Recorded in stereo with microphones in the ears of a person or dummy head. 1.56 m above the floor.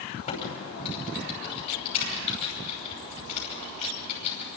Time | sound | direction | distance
0.3 | typing on a keyboard | 40° left (ahead or behind) | 5.5 m